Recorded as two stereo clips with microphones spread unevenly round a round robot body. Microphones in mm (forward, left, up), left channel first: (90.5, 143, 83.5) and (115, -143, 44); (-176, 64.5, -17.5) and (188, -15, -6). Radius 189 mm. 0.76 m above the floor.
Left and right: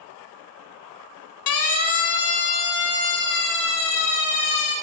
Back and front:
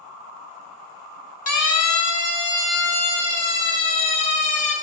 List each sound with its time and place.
1.5 s a siren: 120° left, 3 m; by 4.7 s 130° left, 6 m